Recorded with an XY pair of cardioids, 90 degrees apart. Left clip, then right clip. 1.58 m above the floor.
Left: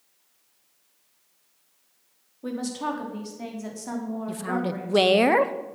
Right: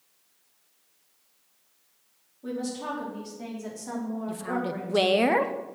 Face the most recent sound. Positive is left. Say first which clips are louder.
# left 2 dB
turn(degrees=25)